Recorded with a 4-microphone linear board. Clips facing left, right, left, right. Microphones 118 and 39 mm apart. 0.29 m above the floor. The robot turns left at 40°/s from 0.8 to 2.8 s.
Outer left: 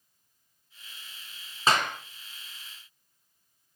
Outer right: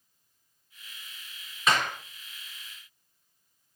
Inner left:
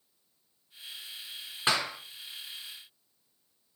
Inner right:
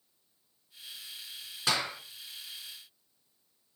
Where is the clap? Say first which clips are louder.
Outer left 1 dB, inner left 2 dB; 30° left (ahead or behind), 3 m; by 2.0 s 20° left (ahead or behind), 3 m.